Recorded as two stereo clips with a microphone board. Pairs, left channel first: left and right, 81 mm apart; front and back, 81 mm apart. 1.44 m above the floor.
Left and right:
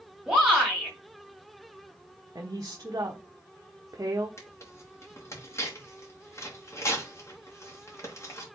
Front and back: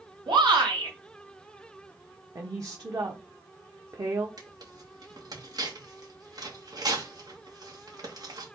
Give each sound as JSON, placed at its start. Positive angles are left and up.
{"t": 0.3, "sound": "a shout", "azimuth_deg": -175, "distance_m": 3.0}
{"t": 2.4, "sound": "a woman speaking", "azimuth_deg": -140, "distance_m": 1.0}
{"t": 4.4, "sound": "tearing paper", "azimuth_deg": 145, "distance_m": 2.5}